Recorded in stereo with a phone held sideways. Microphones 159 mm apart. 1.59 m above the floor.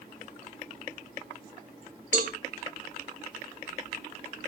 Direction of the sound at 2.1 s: 55° right (ahead or behind).